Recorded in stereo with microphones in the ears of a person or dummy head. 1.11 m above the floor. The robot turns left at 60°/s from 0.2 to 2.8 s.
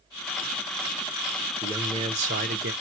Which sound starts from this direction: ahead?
A man speaking, at 1.6 s.